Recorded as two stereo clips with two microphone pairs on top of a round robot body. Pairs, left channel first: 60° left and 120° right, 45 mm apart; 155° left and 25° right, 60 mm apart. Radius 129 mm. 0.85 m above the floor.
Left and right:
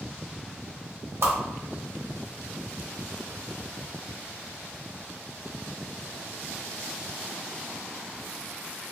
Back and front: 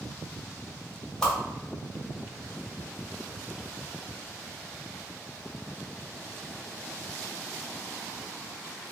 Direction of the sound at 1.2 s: 120° right.